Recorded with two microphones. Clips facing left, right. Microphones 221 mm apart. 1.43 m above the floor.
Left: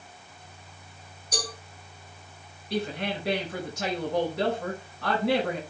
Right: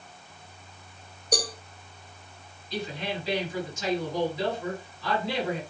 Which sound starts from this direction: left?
A woman speaking, at 2.7 s.